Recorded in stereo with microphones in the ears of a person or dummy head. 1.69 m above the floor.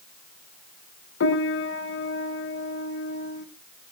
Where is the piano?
65° left (ahead or behind), 1.2 m.